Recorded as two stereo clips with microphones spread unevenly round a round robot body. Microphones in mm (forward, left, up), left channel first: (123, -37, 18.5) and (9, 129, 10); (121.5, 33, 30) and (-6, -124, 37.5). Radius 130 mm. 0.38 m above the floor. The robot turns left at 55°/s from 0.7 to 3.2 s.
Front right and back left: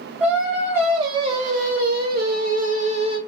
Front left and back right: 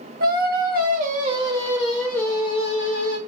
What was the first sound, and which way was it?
Singing, 155° right.